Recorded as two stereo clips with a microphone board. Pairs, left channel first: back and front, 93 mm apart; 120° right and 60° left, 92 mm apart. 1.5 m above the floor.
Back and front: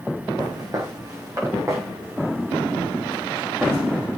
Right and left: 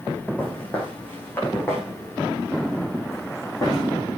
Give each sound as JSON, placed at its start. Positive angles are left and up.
{"t": 0.4, "sound": "footsteps", "azimuth_deg": -45, "distance_m": 5.0}